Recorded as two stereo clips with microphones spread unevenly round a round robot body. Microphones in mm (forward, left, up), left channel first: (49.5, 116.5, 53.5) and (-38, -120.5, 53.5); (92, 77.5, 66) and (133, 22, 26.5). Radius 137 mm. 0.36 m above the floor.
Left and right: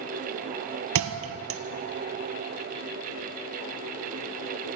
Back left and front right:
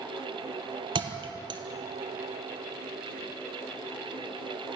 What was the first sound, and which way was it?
A thud, 70° right.